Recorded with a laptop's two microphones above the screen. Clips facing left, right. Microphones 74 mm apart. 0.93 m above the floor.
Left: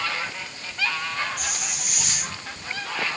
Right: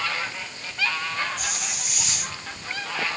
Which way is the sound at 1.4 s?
75° left (ahead or behind).